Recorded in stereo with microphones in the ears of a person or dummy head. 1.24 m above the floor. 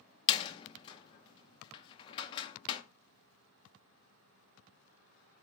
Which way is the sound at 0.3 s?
25° left (ahead or behind).